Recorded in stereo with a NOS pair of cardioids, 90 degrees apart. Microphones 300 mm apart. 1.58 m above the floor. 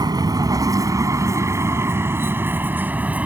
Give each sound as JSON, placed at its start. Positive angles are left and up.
{"t": 0.0, "sound": "a vehicle", "azimuth_deg": -10}